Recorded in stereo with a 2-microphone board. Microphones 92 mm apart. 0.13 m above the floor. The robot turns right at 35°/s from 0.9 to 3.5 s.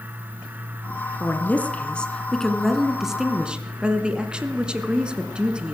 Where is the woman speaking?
20° left (ahead or behind), 1.1 m; by 5.7 s 10° right (ahead or behind), 1.1 m.